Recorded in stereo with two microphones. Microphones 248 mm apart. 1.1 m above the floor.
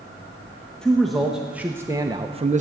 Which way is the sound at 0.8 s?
5° left (ahead or behind).